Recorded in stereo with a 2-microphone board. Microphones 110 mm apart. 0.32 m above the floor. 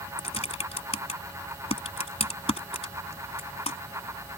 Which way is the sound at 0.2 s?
70° left (ahead or behind).